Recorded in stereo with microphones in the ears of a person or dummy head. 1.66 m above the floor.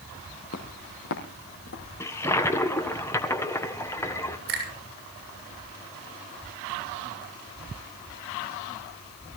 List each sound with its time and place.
0.5 s footsteps: 60° left (ahead or behind), 3.5 m; by 1.9 s 65° left (ahead or behind), 5 m
2.0 s a toilet flushing: 15° left (ahead or behind), 1.3 m
4.5 s a finger snap: 55° right (ahead or behind), 6.5 m